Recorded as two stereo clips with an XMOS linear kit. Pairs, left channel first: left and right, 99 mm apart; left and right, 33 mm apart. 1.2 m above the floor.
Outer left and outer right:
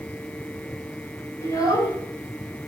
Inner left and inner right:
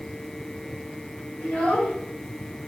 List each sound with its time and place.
1.4 s a child speaking: 40° left (ahead or behind), 4 m